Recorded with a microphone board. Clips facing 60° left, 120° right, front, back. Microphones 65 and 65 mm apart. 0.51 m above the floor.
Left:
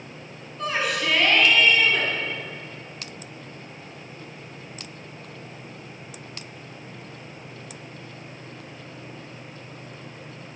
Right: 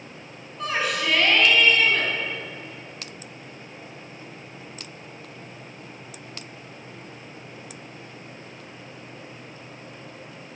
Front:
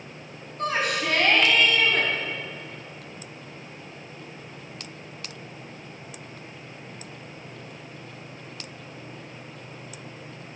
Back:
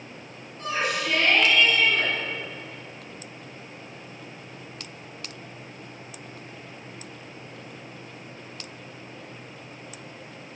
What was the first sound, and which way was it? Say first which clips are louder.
A shout: even, front 2 dB; 30° right.